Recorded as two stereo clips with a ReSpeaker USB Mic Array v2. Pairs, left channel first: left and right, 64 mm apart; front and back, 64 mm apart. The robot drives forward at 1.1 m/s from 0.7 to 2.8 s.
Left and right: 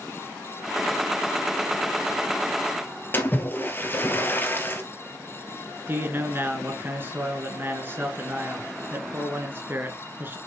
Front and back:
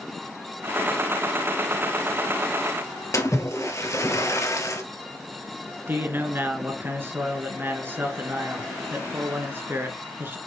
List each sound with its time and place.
3.1 s a splash: 35° left, 1.8 m
5.9 s a man speaking: 135° right, 2 m